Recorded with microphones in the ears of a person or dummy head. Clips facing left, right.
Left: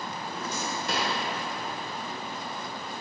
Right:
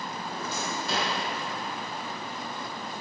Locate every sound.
0.3 s a drawer: 70° left (ahead or behind), 3 m